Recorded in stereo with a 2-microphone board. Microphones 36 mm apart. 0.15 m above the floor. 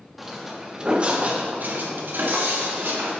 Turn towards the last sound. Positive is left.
turn(degrees=-90)